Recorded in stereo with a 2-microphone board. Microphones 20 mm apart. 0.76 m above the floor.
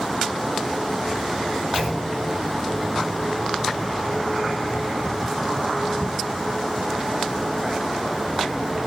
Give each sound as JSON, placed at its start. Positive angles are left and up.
{"t": 1.7, "sound": "a clunk", "side_deg": -65, "distance_m": 2.0}